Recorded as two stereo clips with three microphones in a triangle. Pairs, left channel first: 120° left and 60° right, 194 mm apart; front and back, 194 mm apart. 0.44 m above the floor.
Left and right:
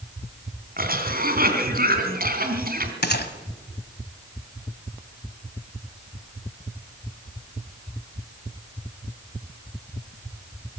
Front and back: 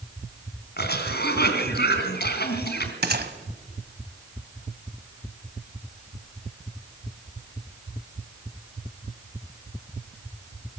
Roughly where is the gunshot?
Behind left.